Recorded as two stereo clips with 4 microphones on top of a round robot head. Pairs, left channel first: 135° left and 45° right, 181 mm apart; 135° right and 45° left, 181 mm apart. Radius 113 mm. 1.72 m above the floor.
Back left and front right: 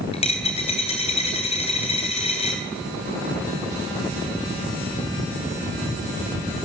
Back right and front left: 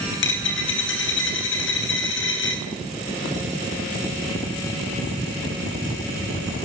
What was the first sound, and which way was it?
A dropped coin, 165° right.